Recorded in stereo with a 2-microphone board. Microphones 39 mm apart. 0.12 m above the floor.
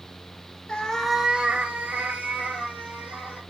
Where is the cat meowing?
25° left (ahead or behind), 0.6 m; by 3.4 s 45° right (ahead or behind), 2 m.